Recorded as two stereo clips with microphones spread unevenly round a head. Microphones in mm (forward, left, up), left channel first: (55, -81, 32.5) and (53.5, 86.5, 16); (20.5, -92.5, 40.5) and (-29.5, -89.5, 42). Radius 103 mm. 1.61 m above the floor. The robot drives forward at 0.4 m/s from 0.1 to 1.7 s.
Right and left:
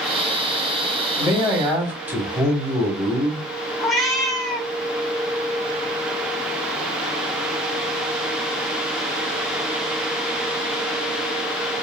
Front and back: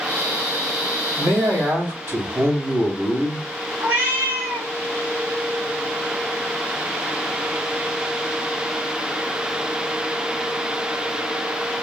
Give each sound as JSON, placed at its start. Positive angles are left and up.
{"t": 1.2, "sound": "a man speaking", "azimuth_deg": 175, "distance_m": 2.0}
{"t": 3.8, "sound": "a cat meowing", "azimuth_deg": -175, "distance_m": 2.0}